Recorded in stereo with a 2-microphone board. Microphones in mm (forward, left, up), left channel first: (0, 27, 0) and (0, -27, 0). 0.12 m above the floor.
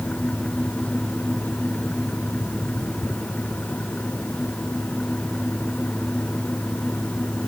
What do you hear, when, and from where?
Only background noise.